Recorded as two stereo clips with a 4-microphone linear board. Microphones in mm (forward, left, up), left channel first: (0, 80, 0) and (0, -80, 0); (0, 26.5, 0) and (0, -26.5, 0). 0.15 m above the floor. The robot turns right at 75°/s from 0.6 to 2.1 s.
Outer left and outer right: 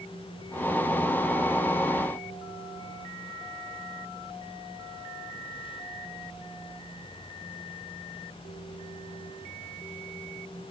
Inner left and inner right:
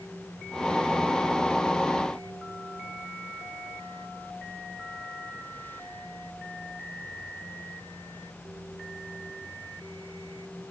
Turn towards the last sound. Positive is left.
No sound to turn to.